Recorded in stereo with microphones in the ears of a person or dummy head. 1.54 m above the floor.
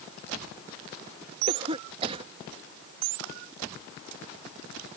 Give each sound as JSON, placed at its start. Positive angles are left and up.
{"t": 1.5, "sound": "a cough", "side_deg": -35}